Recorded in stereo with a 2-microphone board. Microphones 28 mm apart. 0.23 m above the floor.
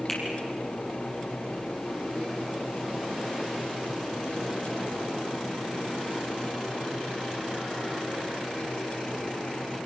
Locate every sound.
0.1 s a finger snap: 20° left (ahead or behind), 6 m